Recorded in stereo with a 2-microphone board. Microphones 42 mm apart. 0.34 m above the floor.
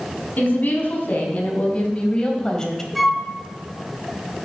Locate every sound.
0.4 s a woman speaking: 45° left (ahead or behind), 3.5 m; by 2.9 s 10° left (ahead or behind), 2 m
3.0 s a flute: centre (ahead or behind), 1.1 m